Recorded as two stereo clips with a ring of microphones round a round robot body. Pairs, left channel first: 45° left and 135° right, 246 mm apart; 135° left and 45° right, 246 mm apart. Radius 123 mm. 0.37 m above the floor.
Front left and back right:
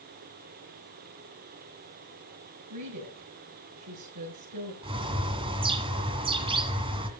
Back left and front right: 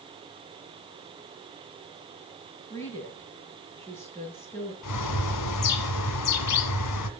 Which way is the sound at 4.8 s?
155° left.